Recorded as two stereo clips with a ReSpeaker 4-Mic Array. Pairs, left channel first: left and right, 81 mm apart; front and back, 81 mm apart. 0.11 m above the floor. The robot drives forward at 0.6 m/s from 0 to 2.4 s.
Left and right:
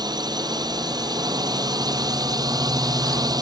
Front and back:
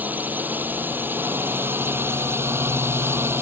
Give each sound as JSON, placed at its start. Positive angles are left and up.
{"t": 0.0, "sound": "a drone", "azimuth_deg": -115}